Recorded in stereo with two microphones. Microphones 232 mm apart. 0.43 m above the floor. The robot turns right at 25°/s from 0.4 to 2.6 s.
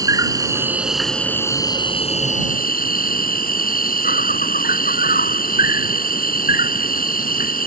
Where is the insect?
15° right; by 7.7 s 40° left.